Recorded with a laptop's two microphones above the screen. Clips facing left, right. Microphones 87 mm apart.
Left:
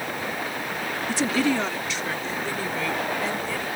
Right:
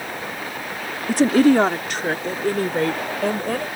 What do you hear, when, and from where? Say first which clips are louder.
1.1 s a woman speaking: right 9 dB; 50° right (ahead or behind); by 3.7 s 55° right (ahead or behind)